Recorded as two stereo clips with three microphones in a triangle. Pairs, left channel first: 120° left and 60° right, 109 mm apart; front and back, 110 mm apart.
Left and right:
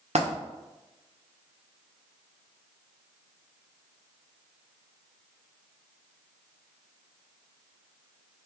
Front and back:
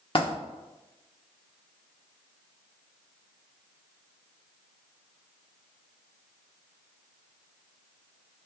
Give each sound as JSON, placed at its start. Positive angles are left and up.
{"t": 0.1, "sound": "a dropped coin", "azimuth_deg": -40, "distance_m": 1.4}